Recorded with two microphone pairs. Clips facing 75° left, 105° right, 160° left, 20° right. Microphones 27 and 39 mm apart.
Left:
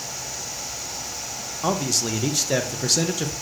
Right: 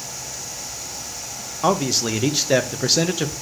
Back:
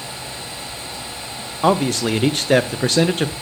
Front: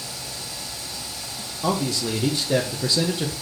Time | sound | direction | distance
1.6 | a man speaking | 175° right | 0.6 m